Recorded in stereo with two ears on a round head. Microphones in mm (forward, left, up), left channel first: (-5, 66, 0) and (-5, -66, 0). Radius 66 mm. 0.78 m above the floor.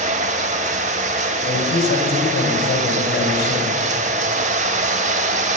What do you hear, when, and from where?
0.0 s running water: 45° right (ahead or behind), 0.8 m
1.4 s a man speaking: 70° left (ahead or behind), 4.5 m